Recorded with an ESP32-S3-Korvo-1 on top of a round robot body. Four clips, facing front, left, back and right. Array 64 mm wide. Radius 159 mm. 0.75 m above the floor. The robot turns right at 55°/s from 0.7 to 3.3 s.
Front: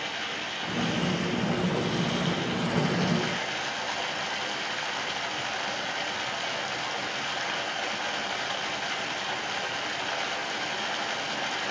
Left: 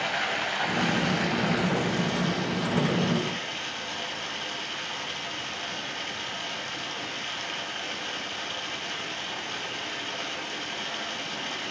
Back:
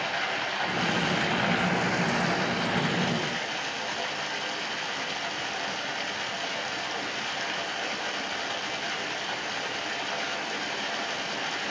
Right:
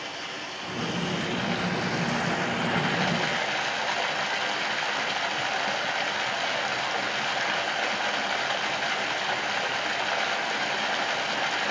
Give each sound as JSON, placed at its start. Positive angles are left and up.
{"t": 0.0, "sound": "running water", "azimuth_deg": 130, "distance_m": 2.0}